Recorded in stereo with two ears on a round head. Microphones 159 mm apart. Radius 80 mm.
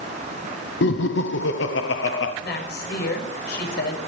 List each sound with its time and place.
0.8 s laughter: 70° left (ahead or behind), 0.8 m
2.4 s a woman speaking: 70° left (ahead or behind), 6.5 m